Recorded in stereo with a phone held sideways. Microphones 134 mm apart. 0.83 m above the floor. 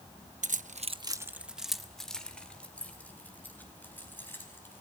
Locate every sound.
0.4 s keys jangling: 65° right (ahead or behind), 0.7 m; by 4.8 s 15° left (ahead or behind), 5.5 m